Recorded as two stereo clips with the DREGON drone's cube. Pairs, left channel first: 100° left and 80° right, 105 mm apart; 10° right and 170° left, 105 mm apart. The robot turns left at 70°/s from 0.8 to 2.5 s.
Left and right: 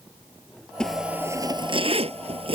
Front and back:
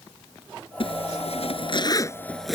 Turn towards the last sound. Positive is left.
turn(degrees=-100)